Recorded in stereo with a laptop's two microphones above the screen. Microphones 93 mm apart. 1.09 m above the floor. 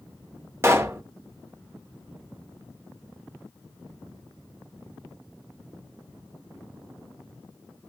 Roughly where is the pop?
Right.